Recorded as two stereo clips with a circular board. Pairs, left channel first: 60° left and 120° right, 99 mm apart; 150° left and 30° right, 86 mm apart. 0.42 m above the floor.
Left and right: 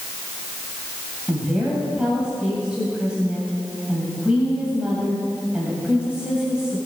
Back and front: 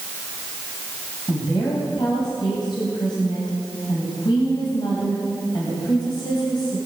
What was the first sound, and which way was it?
A woman speaking, 160° left.